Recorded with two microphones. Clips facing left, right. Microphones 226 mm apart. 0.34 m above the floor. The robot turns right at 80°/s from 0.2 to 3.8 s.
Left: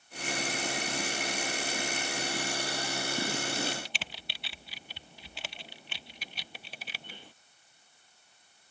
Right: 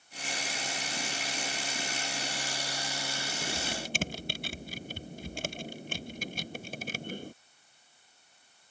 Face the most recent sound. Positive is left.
turn(degrees=-45)  # may be behind; listen again after turning